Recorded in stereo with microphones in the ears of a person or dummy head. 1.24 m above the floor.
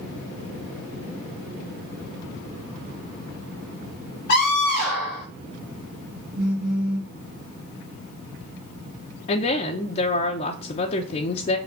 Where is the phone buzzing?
65° right (ahead or behind), 2.5 m.